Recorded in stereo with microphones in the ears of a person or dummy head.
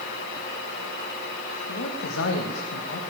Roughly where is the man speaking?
Left.